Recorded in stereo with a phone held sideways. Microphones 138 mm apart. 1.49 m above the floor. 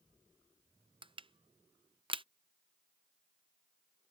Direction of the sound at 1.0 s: 35° right (ahead or behind).